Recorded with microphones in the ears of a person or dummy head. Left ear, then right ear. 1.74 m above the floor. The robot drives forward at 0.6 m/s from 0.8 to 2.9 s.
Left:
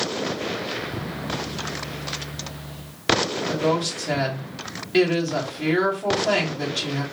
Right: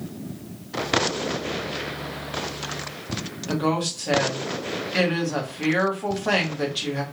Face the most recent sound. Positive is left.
turn(degrees=-10)  # may be behind; listen again after turning